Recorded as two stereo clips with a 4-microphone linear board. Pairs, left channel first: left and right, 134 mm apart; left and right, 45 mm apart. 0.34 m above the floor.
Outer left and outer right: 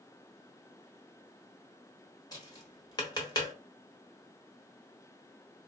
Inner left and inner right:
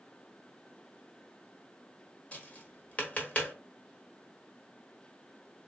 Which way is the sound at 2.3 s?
30° left (ahead or behind).